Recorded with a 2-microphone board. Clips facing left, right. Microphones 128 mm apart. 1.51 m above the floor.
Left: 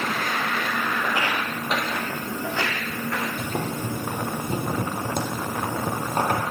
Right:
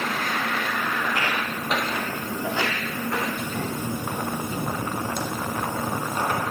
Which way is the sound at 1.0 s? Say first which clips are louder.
Left 1 dB; 25° left (ahead or behind).